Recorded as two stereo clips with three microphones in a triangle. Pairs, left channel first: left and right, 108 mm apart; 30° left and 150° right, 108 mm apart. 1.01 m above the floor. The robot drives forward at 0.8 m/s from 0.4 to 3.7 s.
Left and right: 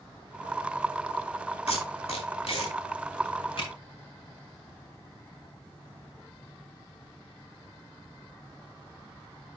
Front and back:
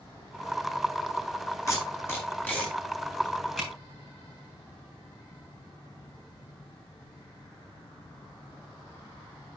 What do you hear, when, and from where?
1.7 s tape being pulled: 90° left, 3 m; by 3.7 s 120° left, 3.5 m